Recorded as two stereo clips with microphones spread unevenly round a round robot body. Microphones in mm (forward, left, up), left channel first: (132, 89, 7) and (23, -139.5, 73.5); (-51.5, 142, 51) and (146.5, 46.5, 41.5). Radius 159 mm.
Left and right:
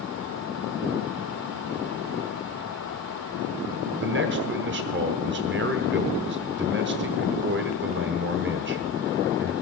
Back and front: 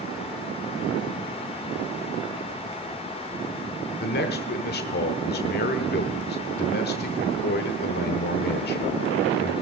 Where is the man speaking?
170° right, 1.2 m.